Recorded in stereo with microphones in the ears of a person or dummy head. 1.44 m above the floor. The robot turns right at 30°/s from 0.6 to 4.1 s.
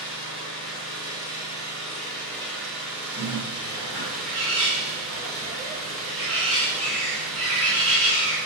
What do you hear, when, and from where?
0.0 s an engine running: 120° left, 1.3 m; by 8.5 s 135° right, 1.3 m
3.2 s a bird: 10° right (ahead or behind), 1.3 m; by 8.4 s 40° right (ahead or behind), 1.3 m